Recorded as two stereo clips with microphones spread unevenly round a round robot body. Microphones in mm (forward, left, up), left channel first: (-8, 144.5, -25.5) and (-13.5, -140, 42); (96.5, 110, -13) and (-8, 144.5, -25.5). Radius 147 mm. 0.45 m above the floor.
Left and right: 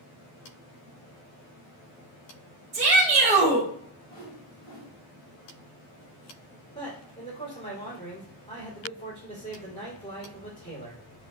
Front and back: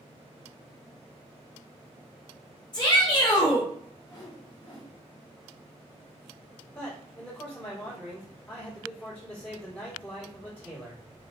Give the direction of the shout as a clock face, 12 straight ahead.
1 o'clock.